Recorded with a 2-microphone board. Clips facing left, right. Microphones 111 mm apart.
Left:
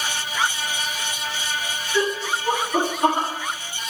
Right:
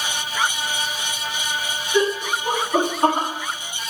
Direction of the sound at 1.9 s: 45° right (ahead or behind).